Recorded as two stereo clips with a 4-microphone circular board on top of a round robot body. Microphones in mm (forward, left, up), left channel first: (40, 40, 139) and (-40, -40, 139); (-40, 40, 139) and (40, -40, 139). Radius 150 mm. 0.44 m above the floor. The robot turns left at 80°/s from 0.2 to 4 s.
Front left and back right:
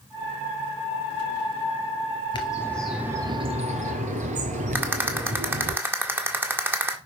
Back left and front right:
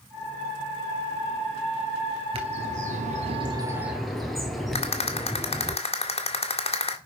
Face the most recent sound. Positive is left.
turn(degrees=155)